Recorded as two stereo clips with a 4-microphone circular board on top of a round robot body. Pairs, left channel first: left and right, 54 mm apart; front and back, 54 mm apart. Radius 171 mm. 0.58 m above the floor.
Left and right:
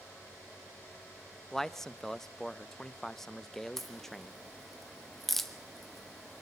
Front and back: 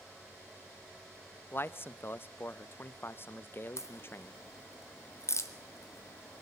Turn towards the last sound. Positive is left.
turn(degrees=5)